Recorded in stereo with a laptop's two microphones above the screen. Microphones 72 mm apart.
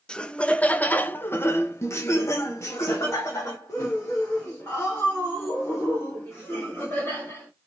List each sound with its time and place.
0.1 s laughter: 10° left (ahead or behind), 1.2 m; by 7.5 s 30° left (ahead or behind), 3.5 m